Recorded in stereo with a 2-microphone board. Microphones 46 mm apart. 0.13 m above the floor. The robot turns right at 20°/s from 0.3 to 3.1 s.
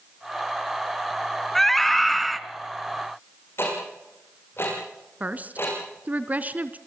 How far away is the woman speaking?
About 1.5 m.